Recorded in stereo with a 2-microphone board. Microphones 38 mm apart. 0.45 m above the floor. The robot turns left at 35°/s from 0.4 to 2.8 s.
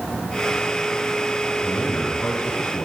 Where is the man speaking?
135° left, 8.5 m; by 2.9 s 95° left, 8.5 m.